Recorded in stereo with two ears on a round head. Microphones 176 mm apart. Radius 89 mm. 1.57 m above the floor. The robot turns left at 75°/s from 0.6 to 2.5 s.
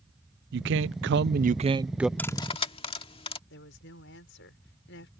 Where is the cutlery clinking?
10° left (ahead or behind); by 3.4 s 30° left (ahead or behind).